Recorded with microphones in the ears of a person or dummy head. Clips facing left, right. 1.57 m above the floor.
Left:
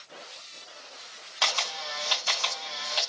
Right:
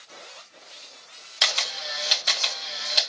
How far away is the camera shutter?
About 0.9 m.